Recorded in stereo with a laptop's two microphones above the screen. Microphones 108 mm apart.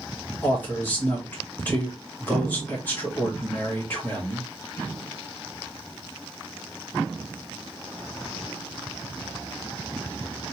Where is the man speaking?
20° left (ahead or behind), 1.7 m.